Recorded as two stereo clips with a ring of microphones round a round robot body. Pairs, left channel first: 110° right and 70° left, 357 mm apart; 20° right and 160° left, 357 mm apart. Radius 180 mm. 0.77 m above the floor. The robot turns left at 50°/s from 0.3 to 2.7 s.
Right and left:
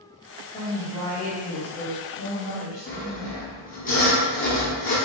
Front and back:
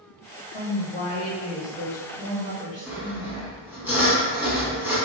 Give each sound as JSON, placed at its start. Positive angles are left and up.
{"t": 0.5, "sound": "a woman speaking", "azimuth_deg": -40, "distance_m": 1.2}
{"t": 2.9, "sound": "sawing", "azimuth_deg": -130, "distance_m": 0.9}